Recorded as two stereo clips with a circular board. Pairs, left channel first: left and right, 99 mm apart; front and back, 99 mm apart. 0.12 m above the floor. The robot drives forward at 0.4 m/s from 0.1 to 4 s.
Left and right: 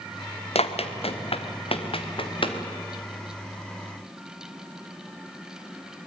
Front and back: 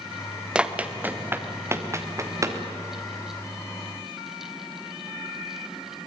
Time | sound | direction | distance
0.6 | running footsteps | 100° left | 2.0 m